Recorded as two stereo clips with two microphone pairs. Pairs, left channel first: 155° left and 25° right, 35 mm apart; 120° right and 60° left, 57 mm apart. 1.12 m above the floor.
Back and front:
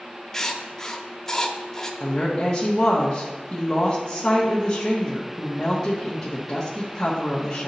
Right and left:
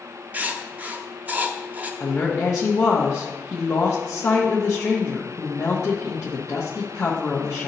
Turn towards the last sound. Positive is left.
turn(degrees=-135)